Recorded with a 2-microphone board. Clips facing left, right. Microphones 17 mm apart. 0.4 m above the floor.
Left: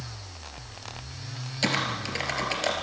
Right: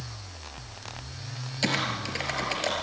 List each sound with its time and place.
1.6 s typing on a keyboard: 10° left (ahead or behind), 3 m